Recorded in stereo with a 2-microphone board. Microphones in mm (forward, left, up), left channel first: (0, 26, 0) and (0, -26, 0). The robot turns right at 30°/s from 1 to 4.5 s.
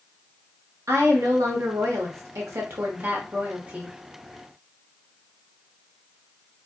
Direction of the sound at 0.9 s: 105° right.